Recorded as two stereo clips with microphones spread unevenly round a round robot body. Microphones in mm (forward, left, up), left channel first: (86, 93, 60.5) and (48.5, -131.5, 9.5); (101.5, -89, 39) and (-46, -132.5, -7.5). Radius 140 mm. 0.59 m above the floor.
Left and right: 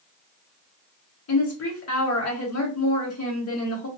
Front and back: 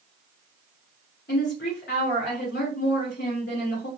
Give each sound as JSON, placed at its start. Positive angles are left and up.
{"t": 1.3, "sound": "a woman speaking", "azimuth_deg": 70, "distance_m": 2.5}